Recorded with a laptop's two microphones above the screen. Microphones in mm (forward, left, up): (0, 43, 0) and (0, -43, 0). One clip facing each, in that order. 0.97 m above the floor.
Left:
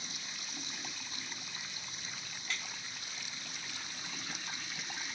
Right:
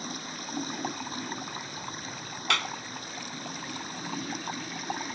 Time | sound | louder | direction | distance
0.0 | running water | right 11 dB | 50° right (ahead or behind) | ?
2.5 | a clap | right 14 dB | 75° right (ahead or behind) | ?